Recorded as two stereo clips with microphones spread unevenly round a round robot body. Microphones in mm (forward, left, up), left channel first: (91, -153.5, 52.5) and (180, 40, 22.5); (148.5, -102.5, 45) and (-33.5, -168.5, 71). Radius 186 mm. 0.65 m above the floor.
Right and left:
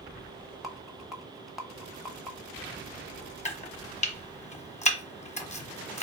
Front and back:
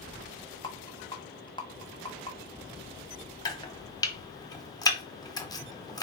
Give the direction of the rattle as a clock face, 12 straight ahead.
12 o'clock.